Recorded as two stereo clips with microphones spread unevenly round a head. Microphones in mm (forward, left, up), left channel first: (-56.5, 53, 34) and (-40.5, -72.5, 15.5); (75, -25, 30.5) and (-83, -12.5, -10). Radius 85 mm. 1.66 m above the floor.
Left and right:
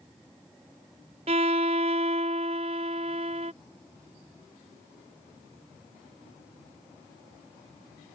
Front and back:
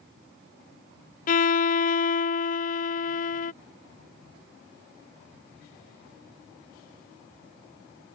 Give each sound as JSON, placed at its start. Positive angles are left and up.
{"t": 1.3, "sound": "a violin", "azimuth_deg": -25}